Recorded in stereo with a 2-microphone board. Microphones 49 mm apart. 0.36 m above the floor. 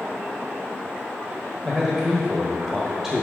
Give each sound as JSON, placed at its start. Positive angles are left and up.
{"t": 1.6, "sound": "a man speaking", "side_deg": -5, "distance_m": 1.1}